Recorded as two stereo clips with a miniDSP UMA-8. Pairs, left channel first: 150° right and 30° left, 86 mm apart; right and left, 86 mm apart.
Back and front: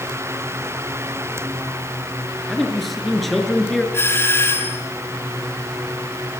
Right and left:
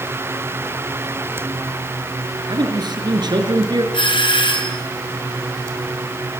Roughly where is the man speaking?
Behind left.